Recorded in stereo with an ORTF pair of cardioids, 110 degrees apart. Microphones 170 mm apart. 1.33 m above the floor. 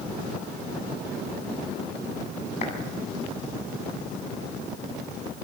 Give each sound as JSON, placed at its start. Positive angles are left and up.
{"t": 2.6, "sound": "a clap", "azimuth_deg": 40, "distance_m": 8.0}